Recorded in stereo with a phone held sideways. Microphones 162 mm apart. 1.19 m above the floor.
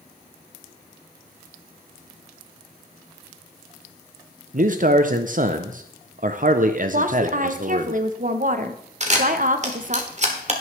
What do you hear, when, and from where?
4.5 s a man speaking: 55° right (ahead or behind), 0.5 m
6.9 s a woman speaking: 55° right (ahead or behind), 0.8 m
9.0 s a camera shutter: 45° right (ahead or behind), 1.5 m